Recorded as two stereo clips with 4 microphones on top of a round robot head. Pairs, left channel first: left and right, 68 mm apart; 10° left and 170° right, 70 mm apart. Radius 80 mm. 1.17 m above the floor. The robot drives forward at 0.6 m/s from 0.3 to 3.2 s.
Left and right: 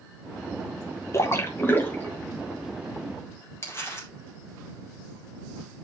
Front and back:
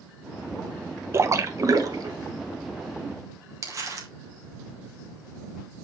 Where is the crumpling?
145° left, 2.5 m.